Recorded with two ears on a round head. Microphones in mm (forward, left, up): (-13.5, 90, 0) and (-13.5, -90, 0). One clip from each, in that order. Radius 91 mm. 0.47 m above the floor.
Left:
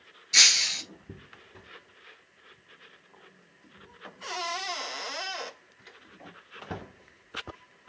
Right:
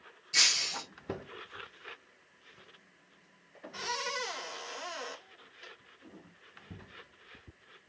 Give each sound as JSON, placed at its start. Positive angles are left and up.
{"t": 0.3, "sound": "breaking glass", "side_deg": 35, "distance_m": 1.3}